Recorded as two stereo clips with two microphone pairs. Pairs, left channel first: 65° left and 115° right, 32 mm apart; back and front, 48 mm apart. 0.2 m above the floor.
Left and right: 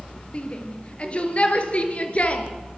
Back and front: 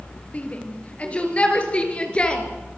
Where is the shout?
120° left, 5 m; by 2.5 s 115° left, 4 m.